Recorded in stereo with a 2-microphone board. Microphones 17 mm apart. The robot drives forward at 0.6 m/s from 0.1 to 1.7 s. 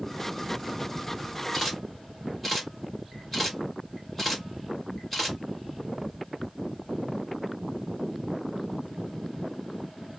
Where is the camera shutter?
10° left (ahead or behind), 1.7 m.